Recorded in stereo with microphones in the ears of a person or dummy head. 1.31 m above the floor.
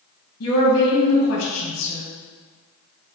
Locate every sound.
0.4 s a woman speaking: 75° left (ahead or behind), 1.7 m